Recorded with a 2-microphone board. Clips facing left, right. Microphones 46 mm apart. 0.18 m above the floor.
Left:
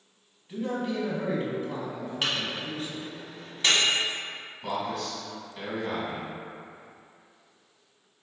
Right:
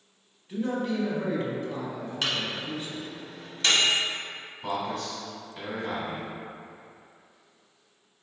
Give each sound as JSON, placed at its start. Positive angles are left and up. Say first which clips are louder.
{"t": 0.5, "sound": "a man speaking", "louder": "right 1 dB", "side_deg": 5, "distance_m": 1.0}
{"t": 2.2, "sound": "a microwave", "louder": "even", "side_deg": 15, "distance_m": 1.4}
{"t": 4.6, "sound": "a man speaking", "louder": "even", "side_deg": -5, "distance_m": 1.6}